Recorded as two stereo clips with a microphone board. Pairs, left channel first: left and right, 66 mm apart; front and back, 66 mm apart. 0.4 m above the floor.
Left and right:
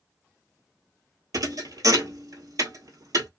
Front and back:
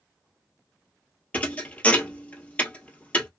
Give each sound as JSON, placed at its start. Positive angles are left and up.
{"t": 1.3, "sound": "a thud", "azimuth_deg": -65, "distance_m": 1.0}